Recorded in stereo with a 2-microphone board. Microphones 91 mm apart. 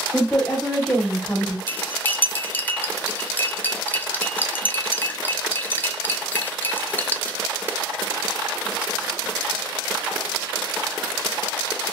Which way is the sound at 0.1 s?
10° left (ahead or behind).